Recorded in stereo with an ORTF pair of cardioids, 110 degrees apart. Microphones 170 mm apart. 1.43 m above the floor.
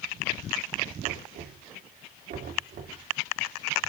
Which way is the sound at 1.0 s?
65° right.